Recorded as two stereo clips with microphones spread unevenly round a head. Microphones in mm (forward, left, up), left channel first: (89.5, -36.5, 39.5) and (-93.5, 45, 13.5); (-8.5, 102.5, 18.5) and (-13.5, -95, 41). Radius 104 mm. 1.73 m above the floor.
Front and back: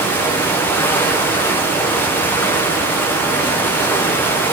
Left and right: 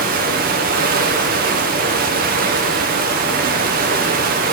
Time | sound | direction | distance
0.0 | running water | 95° right | 0.8 m